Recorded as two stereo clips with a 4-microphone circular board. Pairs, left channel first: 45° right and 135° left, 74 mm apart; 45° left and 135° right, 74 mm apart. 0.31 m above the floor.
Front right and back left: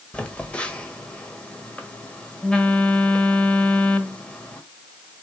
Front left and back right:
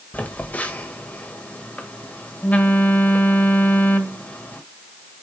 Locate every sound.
0.1 s a phone buzzing: 10° left, 1.3 m